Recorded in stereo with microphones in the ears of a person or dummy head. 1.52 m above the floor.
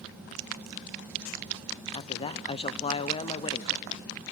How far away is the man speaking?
About 0.7 m.